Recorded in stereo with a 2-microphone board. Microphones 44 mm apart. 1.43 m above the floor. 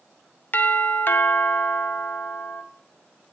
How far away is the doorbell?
About 0.7 m.